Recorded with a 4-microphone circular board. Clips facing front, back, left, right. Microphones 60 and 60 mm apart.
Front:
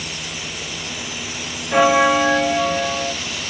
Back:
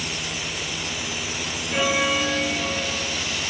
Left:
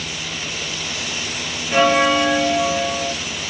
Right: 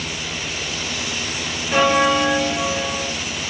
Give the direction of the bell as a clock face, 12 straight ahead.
12 o'clock.